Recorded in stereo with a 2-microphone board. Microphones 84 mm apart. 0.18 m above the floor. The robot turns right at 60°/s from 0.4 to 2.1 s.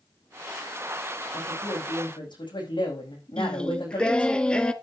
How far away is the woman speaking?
About 9 m.